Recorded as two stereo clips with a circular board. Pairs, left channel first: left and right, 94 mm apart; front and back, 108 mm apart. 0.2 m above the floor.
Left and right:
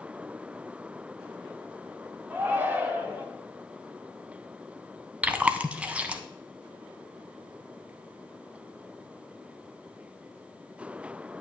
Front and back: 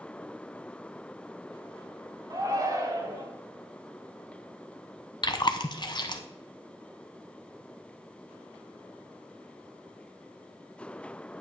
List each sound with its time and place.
2.3 s a shout: 150° right, 1.5 m
5.2 s chewing: 20° right, 0.7 m